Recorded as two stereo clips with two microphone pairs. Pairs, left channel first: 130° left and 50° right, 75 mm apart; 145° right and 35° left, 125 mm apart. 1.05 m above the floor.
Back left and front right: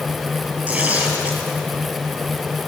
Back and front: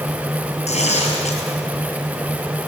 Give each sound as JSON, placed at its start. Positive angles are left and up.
{"t": 0.7, "sound": "tearing paper", "azimuth_deg": -120, "distance_m": 5.5}